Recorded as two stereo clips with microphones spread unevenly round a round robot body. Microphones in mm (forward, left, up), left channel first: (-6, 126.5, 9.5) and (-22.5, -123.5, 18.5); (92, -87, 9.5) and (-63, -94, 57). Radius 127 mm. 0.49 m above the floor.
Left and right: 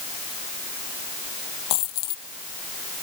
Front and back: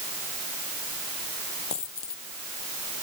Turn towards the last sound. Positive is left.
turn(degrees=70)